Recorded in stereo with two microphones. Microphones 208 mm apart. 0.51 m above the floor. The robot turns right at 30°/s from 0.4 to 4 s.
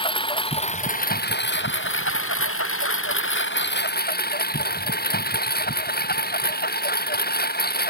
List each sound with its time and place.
0.0 s a lawn mower: 25° left; by 7.9 s 130° left